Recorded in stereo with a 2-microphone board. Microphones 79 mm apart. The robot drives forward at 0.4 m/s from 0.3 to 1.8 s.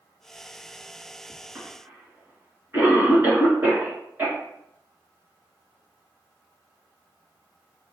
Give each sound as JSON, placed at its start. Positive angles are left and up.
{"t": 1.6, "sound": "a cough", "side_deg": -25, "distance_m": 1.7}